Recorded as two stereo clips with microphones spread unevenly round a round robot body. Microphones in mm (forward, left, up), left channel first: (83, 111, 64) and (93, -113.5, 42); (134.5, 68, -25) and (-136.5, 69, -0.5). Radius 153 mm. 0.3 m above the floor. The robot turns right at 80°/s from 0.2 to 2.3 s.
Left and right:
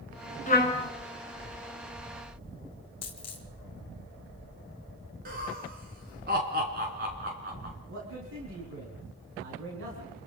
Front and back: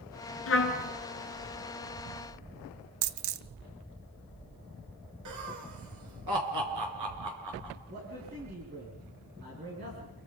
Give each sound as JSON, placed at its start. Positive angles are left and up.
{"t": 0.5, "sound": "a trumpet", "azimuth_deg": 35, "distance_m": 3.0}
{"t": 3.0, "sound": "a dropped coin", "azimuth_deg": 165, "distance_m": 0.9}
{"t": 5.2, "sound": "laughter", "azimuth_deg": -140, "distance_m": 4.0}
{"t": 7.9, "sound": "a man speaking", "azimuth_deg": -120, "distance_m": 4.5}